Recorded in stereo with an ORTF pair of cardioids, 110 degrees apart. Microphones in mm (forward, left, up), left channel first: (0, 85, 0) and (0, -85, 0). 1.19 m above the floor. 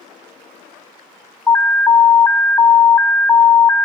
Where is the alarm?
10° left, 0.8 m.